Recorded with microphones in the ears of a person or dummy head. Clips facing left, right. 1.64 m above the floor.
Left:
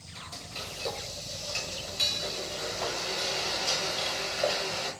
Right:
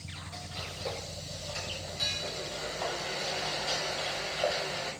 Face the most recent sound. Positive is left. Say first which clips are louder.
# left 1 dB
turn(degrees=40)  # may be behind; listen again after turning